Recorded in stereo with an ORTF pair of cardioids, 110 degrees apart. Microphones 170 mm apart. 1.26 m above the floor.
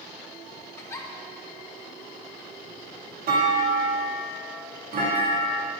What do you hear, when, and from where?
0.8 s a giggle: 15° left, 1.1 m
3.3 s a clunk: 60° right, 2.5 m